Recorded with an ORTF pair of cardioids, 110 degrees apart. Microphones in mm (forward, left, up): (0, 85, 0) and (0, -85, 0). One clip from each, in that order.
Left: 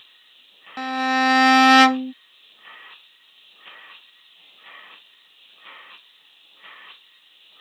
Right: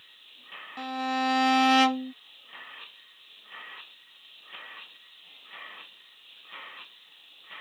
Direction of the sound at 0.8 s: 40° left.